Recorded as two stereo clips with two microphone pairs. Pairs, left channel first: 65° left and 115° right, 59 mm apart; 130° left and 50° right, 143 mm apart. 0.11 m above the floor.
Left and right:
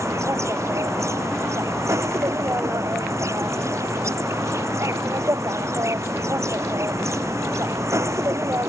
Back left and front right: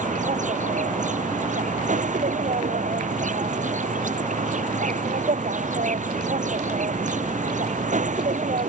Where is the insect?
80° right.